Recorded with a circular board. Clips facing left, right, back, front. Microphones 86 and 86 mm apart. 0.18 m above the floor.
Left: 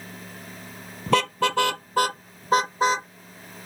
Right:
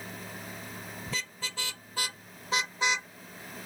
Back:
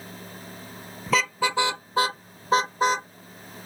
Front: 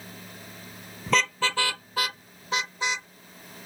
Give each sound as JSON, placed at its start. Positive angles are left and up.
{"t": 1.1, "sound": "a car horn", "azimuth_deg": 90}